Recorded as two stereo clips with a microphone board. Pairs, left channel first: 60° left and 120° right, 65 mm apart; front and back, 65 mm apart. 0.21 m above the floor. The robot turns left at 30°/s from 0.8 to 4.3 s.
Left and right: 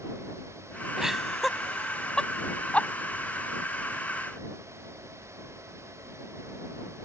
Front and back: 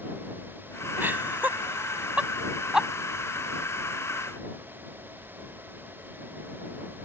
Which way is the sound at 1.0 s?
165° left.